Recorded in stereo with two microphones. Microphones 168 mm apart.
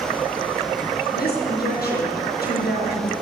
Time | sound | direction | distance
1.1 | a woman speaking | 70° left (ahead or behind) | 5 m